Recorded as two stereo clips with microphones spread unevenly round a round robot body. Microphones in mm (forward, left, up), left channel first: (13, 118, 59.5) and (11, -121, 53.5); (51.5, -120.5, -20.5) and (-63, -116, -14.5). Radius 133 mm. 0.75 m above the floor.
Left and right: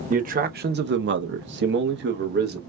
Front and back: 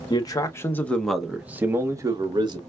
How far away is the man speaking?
About 1.0 m.